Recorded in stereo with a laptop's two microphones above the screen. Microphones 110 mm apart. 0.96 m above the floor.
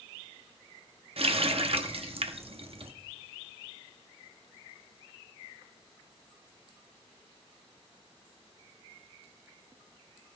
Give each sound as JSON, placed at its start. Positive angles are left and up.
{"t": 1.2, "sound": "a running tap", "side_deg": -60, "distance_m": 0.8}